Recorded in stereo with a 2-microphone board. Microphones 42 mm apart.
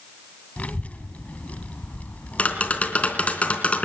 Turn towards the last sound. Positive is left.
turn(degrees=30)  # may be behind; listen again after turning